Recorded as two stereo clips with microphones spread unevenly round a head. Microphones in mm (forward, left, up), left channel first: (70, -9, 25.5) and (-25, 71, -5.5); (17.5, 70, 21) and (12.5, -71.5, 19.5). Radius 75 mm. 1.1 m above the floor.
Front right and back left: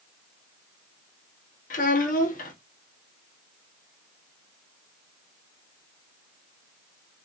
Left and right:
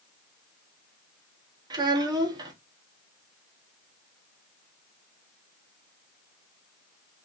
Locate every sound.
1.7 s a child speaking: 30° right, 1.0 m